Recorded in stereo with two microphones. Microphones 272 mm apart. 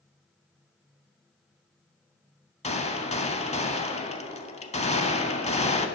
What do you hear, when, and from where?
2.6 s a gunshot: 25° left (ahead or behind), 0.5 m